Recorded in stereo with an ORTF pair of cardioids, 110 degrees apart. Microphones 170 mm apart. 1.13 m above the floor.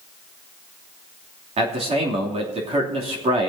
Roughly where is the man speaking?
Ahead right.